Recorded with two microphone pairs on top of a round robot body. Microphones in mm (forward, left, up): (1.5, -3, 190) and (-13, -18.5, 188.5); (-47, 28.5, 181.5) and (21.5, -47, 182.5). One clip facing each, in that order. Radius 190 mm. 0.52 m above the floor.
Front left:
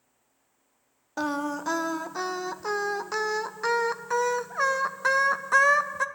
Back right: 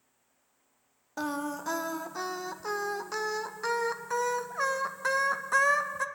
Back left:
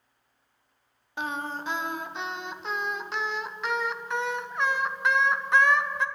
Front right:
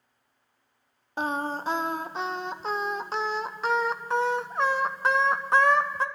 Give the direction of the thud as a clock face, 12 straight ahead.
No thud in this recording.